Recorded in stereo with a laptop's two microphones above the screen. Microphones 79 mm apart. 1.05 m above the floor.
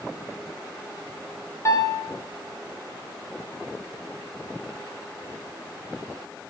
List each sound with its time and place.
1.6 s a piano: 40° left (ahead or behind), 2.5 m